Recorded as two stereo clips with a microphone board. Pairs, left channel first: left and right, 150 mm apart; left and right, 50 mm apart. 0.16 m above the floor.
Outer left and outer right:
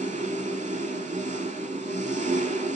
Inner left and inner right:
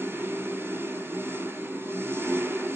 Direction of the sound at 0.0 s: 55° right (ahead or behind).